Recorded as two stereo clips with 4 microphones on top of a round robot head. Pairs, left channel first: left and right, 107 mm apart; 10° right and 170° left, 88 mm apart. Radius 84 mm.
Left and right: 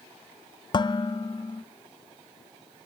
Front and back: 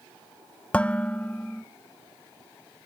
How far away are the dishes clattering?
About 0.8 m.